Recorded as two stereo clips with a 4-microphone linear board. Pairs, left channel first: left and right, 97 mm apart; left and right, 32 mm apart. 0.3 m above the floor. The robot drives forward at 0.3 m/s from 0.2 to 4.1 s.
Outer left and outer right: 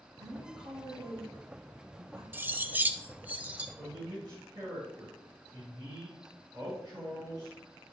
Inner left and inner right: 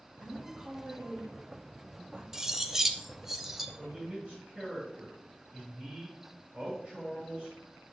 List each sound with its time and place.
0.2 s a woman speaking: 55° right (ahead or behind), 1.9 m
2.3 s cutlery clinking: 20° right (ahead or behind), 0.5 m; by 3.7 s 15° right (ahead or behind), 0.8 m
3.8 s a man speaking: 50° right (ahead or behind), 3.5 m